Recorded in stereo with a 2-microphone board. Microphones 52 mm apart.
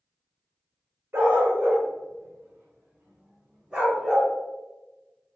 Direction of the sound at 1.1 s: 60° right (ahead or behind).